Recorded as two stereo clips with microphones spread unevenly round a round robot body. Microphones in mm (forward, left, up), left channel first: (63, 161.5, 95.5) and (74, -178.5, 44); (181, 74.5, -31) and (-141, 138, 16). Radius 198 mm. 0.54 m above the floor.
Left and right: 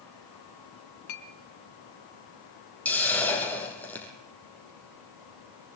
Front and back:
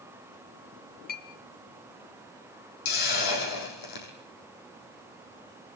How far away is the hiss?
About 6 m.